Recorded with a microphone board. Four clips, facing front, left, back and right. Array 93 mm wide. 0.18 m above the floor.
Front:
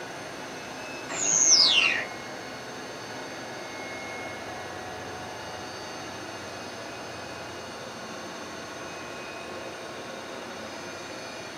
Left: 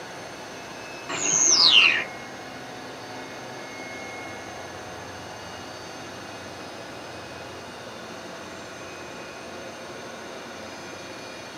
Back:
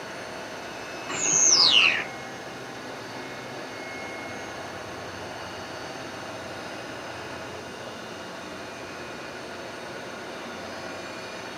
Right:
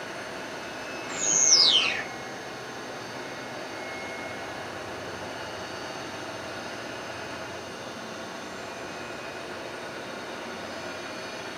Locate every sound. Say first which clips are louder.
1.1 s a bird: left 5 dB, back 3 dB; 120° left, 0.7 m